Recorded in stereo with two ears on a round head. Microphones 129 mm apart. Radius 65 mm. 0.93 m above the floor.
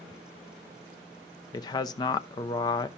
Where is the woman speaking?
30° left (ahead or behind), 0.7 m.